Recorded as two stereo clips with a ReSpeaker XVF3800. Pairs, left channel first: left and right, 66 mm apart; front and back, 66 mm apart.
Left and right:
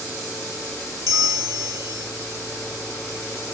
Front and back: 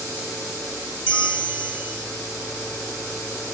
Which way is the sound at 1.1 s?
120° right.